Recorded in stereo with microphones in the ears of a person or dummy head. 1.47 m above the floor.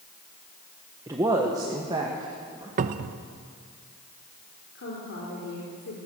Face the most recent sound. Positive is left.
turn(degrees=60)  # may be behind; listen again after turning